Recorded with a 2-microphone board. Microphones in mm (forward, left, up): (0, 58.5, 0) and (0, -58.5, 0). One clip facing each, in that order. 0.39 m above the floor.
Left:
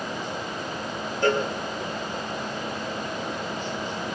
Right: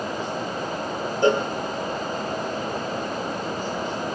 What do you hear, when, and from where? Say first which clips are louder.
1.2 s a cowbell: right 3 dB; 15° right (ahead or behind), 2.5 m